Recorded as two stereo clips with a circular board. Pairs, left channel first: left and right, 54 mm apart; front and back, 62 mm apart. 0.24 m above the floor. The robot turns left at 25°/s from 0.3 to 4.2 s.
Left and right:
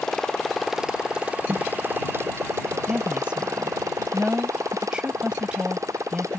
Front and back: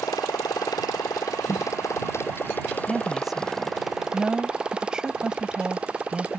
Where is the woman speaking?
95° right; by 6.4 s 125° right.